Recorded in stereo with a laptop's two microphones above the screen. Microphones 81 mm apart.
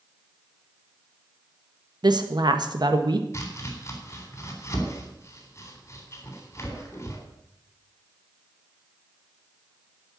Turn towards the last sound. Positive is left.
turn(degrees=35)  # may be behind; listen again after turning